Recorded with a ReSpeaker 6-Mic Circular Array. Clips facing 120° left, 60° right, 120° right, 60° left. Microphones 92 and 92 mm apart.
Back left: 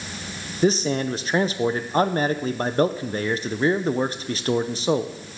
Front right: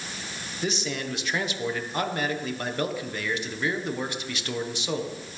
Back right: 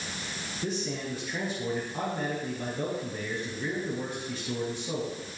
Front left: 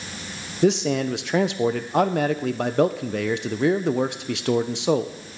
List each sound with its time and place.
0.6 s a man speaking: 65° left, 0.5 m